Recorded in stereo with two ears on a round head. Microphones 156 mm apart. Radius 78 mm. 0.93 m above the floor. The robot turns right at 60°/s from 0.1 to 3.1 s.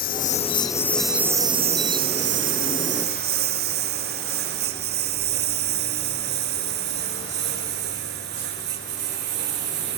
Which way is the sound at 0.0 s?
55° left (ahead or behind).